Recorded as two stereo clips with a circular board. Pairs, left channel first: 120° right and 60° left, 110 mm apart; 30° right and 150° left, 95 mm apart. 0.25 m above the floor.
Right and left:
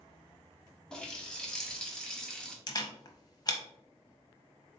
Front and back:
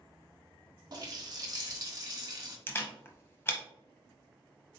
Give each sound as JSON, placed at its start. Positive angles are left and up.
{"t": 0.9, "sound": "a running tap", "azimuth_deg": 160, "distance_m": 1.0}
{"t": 2.7, "sound": "a camera shutter", "azimuth_deg": -85, "distance_m": 0.9}